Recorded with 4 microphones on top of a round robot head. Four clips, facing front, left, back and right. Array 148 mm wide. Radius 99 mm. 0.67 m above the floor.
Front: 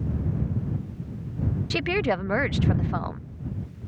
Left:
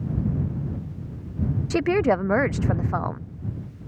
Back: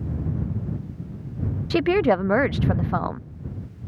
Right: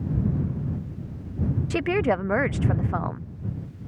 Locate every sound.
1.7 s a woman speaking: 155° left